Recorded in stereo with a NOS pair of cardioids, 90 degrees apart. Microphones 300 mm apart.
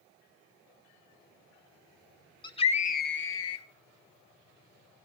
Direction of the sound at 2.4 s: 15° left.